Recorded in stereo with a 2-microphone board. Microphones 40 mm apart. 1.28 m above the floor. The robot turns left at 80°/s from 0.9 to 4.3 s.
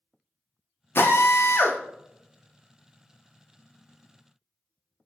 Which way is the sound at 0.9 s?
120° left.